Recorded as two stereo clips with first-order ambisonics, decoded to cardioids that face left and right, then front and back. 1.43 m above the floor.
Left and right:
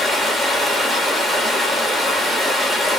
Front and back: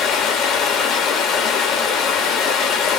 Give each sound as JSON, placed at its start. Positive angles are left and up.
{"t": 0.0, "sound": "running water", "azimuth_deg": 5, "distance_m": 1.0}